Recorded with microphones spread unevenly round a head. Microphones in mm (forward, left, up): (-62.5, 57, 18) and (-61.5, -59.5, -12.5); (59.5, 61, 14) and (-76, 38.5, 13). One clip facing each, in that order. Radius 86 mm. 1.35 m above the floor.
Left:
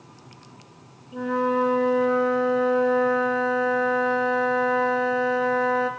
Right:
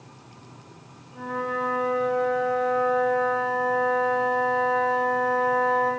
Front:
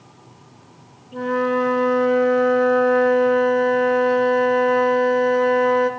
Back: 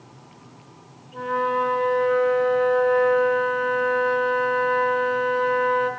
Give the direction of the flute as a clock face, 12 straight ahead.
10 o'clock.